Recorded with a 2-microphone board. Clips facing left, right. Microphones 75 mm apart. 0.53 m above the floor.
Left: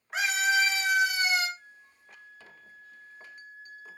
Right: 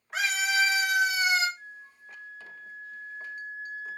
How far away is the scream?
About 2.5 m.